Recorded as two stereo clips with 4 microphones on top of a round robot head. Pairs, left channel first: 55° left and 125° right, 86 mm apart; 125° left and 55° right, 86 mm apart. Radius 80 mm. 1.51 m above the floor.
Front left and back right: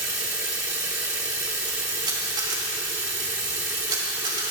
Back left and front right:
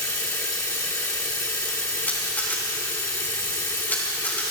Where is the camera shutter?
165° right, 5 m.